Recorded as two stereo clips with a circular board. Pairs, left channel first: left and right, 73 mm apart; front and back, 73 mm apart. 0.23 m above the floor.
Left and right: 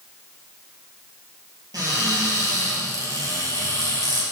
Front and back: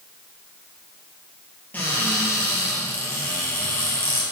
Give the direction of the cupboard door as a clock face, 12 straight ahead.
2 o'clock.